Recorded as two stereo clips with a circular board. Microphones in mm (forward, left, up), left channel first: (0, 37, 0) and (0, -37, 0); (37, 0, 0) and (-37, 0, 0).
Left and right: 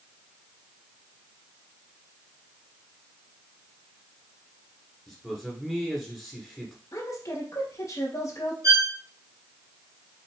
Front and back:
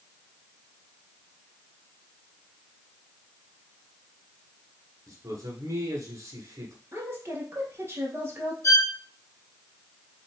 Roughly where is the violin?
Ahead right.